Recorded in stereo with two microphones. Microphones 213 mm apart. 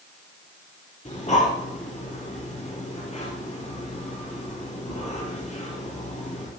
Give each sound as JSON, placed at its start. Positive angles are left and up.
{"t": 1.1, "sound": "breathing", "side_deg": 35, "distance_m": 4.0}